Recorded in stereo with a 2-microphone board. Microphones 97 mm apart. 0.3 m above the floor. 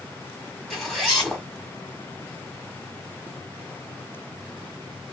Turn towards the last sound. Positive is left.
turn(degrees=0)  # may be behind; listen again after turning